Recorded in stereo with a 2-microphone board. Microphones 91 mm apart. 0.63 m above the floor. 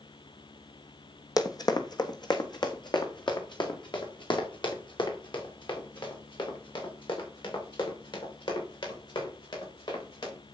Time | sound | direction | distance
1.4 | running footsteps | 45° left (ahead or behind) | 1.2 m